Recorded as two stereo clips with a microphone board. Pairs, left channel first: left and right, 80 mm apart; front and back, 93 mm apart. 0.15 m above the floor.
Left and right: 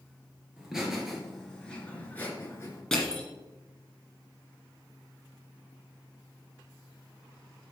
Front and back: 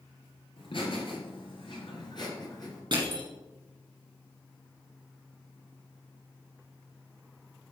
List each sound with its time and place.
0.6 s laughter: 10° right, 3 m; by 2.8 s 45° left, 2.5 m
2.9 s crushing: 175° left, 2.5 m